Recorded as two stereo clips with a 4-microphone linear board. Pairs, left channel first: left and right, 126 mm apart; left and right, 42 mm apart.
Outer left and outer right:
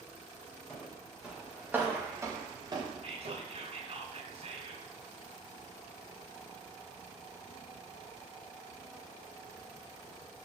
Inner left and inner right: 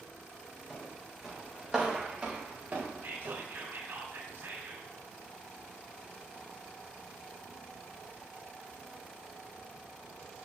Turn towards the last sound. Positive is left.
turn(degrees=-60)  # may be behind; listen again after turning